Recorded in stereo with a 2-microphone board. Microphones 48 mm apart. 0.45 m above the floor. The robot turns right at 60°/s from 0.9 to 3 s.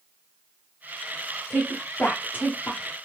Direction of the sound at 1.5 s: 30° left (ahead or behind).